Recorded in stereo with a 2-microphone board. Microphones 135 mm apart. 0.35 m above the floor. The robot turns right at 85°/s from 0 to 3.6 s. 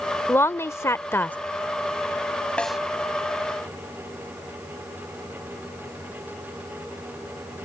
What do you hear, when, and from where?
0.3 s a woman speaking: 15° left (ahead or behind); by 1.4 s 10° left (ahead or behind)
2.6 s a snare drum: 10° left (ahead or behind); by 2.8 s 5° right (ahead or behind)